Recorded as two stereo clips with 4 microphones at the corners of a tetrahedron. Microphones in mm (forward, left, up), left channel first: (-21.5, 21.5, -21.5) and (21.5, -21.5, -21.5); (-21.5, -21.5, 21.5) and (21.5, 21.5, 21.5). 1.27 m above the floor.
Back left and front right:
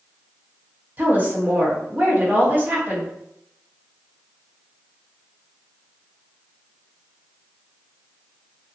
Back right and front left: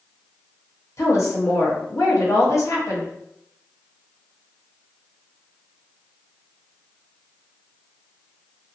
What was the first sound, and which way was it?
A woman speaking, 100° right.